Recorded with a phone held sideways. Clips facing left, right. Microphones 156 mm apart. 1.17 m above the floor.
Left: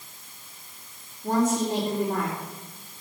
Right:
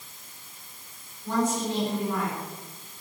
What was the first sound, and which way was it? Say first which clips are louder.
A woman speaking: left 3 dB; 50° left (ahead or behind).